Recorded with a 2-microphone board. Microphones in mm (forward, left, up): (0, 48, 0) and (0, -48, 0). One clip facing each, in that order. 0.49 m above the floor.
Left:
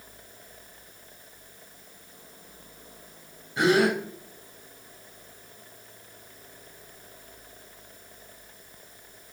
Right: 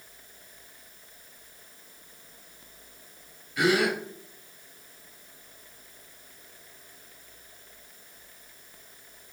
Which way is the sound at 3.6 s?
30° left (ahead or behind).